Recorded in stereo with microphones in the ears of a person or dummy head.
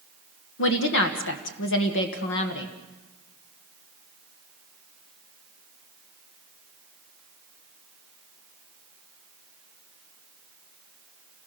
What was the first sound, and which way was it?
A woman speaking, 60° left (ahead or behind).